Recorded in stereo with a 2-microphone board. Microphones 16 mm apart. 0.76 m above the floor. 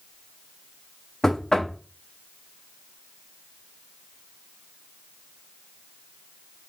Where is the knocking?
35° left (ahead or behind), 0.6 m.